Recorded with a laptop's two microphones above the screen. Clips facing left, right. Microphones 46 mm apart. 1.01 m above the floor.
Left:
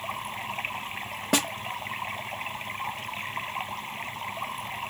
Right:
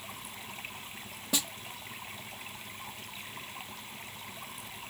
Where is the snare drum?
65° left (ahead or behind).